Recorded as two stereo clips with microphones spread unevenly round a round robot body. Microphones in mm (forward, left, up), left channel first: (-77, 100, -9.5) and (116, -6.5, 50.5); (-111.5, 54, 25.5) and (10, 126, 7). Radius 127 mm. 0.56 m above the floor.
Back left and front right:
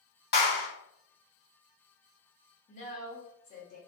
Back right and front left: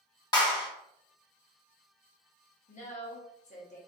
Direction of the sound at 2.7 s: 175° right.